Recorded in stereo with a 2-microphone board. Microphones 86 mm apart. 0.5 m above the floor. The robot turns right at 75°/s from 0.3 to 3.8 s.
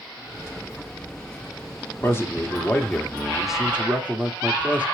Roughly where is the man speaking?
Left.